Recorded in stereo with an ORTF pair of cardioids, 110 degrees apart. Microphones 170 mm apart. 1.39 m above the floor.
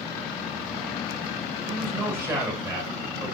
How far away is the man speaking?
About 5 m.